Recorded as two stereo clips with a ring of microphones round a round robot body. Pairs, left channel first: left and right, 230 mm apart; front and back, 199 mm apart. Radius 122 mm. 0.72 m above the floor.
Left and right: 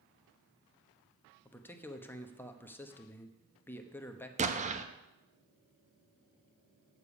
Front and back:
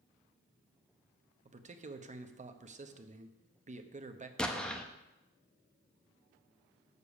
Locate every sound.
1.4 s a man speaking: 165° left, 0.9 m
4.4 s an explosion: 80° right, 0.8 m